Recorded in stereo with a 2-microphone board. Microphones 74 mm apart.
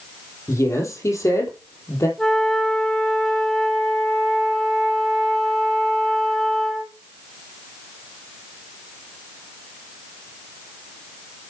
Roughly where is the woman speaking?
Left.